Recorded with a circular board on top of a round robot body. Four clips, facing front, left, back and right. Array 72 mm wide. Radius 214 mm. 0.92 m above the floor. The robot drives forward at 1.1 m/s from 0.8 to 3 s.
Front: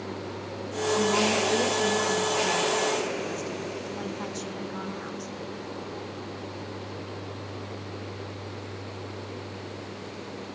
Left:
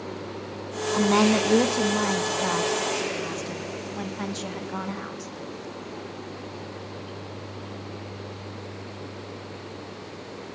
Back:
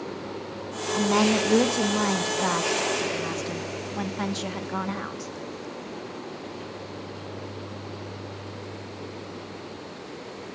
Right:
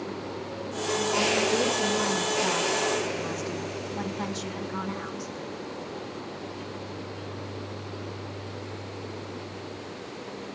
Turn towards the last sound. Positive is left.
turn(degrees=160)